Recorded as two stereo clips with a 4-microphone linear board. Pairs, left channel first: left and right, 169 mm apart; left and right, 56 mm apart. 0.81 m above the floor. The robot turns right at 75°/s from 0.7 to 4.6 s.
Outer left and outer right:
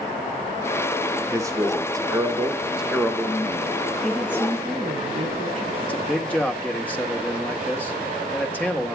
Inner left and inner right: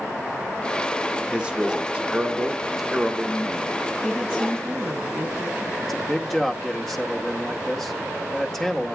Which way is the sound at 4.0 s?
170° left.